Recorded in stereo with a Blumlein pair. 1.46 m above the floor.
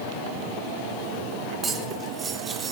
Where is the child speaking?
I don't hear a child speaking.